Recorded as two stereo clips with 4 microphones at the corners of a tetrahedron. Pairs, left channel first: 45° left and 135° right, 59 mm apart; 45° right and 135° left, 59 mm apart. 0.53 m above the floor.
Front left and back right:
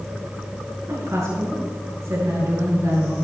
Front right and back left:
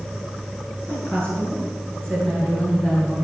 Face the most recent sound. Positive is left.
turn(degrees=-115)